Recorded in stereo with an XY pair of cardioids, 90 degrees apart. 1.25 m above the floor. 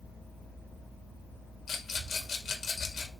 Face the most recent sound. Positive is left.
turn(degrees=55)